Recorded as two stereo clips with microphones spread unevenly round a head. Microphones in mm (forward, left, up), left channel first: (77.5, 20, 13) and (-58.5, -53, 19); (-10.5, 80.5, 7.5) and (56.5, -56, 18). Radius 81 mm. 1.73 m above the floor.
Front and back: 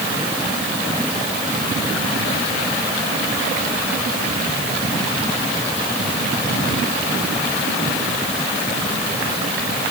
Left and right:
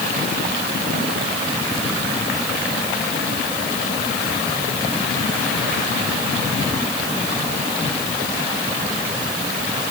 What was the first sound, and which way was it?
Only background noise.